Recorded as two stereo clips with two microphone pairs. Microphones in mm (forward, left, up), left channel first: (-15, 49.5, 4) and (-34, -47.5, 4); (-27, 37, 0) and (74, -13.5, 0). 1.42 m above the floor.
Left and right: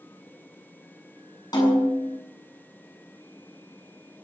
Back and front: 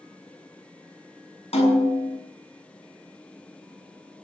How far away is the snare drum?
About 7.5 m.